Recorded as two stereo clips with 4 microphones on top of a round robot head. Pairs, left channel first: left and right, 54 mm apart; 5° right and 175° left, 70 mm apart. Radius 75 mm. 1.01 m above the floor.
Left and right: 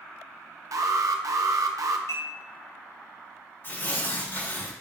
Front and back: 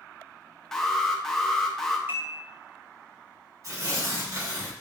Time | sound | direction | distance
0.7 | an alarm | 85° right | 0.8 m
2.1 | dishes clattering | 120° left | 4 m
3.6 | tearing paper | 135° left | 4 m